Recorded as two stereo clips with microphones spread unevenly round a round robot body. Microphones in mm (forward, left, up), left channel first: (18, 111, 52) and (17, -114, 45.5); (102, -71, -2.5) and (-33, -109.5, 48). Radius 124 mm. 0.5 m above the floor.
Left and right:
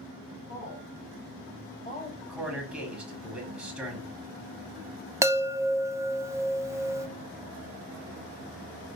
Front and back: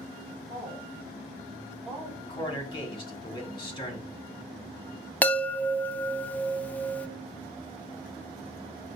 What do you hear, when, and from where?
0.5 s a woman speaking: 70° left, 2.5 m; by 2.1 s 90° left, 1.3 m
2.2 s a man speaking: 5° right, 1.4 m
5.2 s a chime: 20° right, 0.5 m